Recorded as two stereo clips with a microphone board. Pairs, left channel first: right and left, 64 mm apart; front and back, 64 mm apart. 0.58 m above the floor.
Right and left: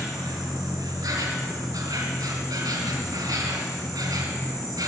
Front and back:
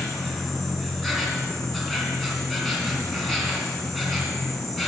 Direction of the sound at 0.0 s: 90° left.